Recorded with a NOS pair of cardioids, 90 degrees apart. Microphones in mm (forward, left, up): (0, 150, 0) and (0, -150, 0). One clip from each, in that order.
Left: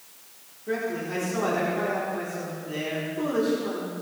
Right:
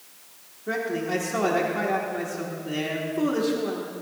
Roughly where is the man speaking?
Ahead right.